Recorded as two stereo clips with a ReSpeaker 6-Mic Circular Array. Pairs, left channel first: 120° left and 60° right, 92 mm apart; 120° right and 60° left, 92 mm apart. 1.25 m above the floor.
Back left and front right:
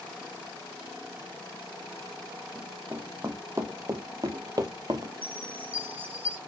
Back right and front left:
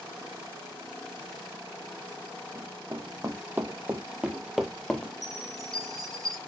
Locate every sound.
2.5 s running footsteps: 5° left, 3 m; by 5.1 s 45° right, 1.7 m
5.2 s a chime: 10° left, 3.5 m